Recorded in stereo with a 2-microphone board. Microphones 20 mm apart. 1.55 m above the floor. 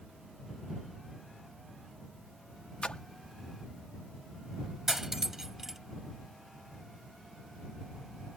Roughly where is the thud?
I don't hear a thud.